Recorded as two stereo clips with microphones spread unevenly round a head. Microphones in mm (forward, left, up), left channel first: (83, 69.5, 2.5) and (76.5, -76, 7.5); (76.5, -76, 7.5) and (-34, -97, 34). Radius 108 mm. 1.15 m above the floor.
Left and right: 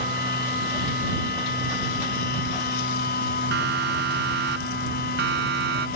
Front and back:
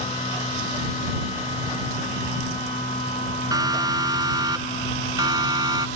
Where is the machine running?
75° left.